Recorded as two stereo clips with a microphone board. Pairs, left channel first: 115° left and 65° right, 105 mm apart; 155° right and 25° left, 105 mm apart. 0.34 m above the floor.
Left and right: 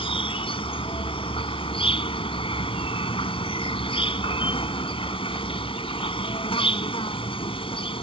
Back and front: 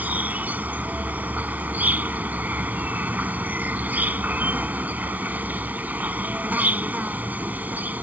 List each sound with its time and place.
0.0 s an insect: 95° left